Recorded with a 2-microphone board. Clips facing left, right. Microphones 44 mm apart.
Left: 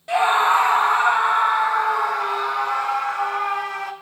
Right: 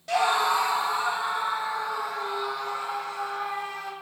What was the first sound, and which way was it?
A scream, 20° left (ahead or behind).